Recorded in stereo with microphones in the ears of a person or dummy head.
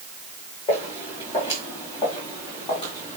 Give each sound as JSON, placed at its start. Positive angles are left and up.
{"t": 0.7, "sound": "footsteps", "side_deg": 35, "distance_m": 5.5}